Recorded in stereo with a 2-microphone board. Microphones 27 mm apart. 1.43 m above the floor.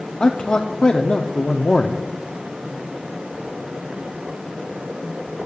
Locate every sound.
0.2 s a man speaking: 35° left (ahead or behind), 0.5 m